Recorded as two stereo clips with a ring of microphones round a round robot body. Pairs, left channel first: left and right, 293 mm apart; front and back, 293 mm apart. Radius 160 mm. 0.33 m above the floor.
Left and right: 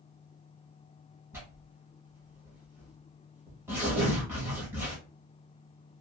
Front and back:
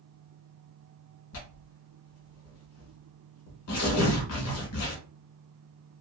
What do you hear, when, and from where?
1.3 s tearing paper: 10° right, 1.0 m